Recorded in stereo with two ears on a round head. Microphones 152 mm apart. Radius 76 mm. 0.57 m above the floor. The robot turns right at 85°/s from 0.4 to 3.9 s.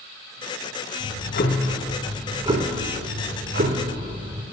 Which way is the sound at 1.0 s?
85° left.